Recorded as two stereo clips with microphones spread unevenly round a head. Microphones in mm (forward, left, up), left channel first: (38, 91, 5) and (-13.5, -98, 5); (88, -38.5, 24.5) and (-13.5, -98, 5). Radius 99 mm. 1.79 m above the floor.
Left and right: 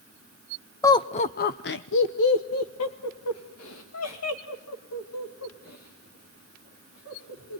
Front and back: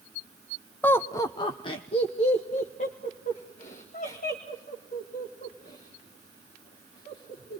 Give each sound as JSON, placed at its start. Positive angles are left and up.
{"t": 0.8, "sound": "laughter", "azimuth_deg": 25, "distance_m": 0.6}